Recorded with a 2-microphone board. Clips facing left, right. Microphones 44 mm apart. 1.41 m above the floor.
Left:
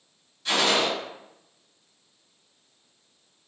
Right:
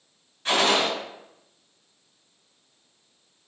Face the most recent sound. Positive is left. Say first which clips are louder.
# right 1 dB
turn(degrees=-40)  # may be behind; listen again after turning